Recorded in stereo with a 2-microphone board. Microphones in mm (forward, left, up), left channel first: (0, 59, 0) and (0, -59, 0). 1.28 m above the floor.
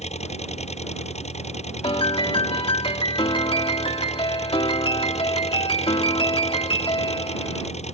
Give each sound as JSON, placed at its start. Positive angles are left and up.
{"t": 0.0, "sound": "an engine running", "side_deg": 80}
{"t": 1.8, "sound": "a piano", "side_deg": 55}